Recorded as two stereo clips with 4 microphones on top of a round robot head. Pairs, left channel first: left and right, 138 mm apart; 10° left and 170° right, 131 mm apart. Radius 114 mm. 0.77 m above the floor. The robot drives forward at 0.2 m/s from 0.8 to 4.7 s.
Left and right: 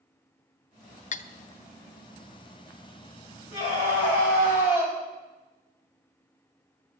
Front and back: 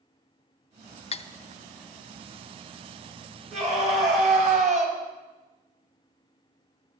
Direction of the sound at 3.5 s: 160° left.